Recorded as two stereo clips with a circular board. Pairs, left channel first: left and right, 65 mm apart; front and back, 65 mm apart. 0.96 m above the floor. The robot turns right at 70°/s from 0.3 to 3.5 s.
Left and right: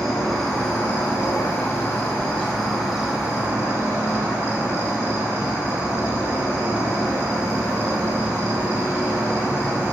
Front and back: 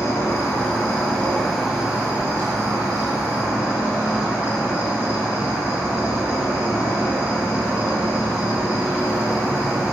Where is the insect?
5° left, 0.8 m; by 9.9 s 130° right, 0.8 m.